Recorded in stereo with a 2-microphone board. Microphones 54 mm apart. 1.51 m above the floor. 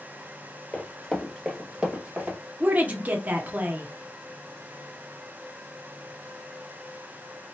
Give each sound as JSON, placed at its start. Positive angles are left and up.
{"t": 0.7, "sound": "running footsteps", "side_deg": 25, "distance_m": 1.7}
{"t": 2.6, "sound": "a woman speaking", "side_deg": -30, "distance_m": 0.7}